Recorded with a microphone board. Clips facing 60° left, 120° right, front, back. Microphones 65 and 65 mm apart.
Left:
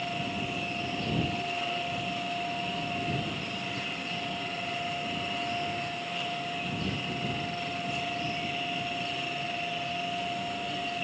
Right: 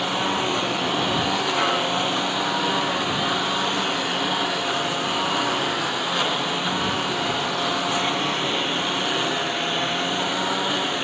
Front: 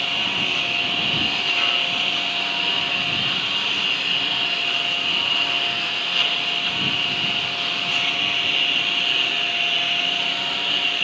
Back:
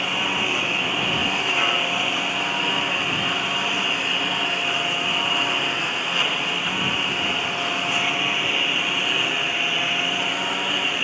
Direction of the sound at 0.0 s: 110° right.